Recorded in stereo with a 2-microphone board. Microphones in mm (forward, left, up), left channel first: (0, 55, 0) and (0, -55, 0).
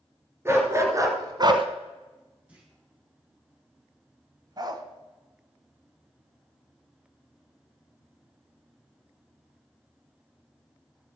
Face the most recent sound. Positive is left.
turn(degrees=-35)  # may be behind; listen again after turning